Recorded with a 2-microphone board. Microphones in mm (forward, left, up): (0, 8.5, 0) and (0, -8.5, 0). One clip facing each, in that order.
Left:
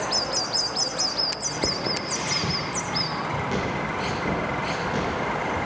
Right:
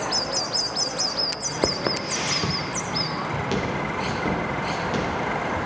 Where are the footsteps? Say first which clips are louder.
Right 2 dB; 35° right (ahead or behind), 0.6 m; by 5.6 s 30° right (ahead or behind), 5 m.